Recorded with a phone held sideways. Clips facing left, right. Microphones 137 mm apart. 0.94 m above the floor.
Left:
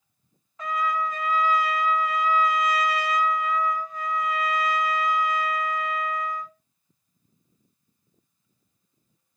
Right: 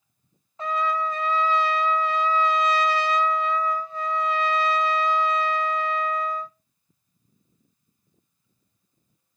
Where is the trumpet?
30° right (ahead or behind), 0.5 m.